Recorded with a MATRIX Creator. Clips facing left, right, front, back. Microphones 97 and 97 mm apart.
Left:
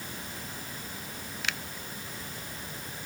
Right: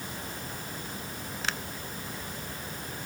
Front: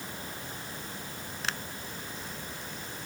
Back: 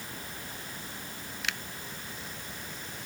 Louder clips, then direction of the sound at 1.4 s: Right 2 dB, front 2 dB; 45° right.